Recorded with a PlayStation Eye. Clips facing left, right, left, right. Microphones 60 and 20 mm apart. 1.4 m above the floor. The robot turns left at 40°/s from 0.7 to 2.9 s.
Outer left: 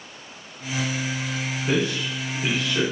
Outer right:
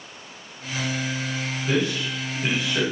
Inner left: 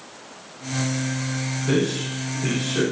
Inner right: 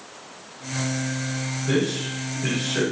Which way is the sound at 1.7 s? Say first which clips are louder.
Even, inner left 1 dB; 30° left (ahead or behind).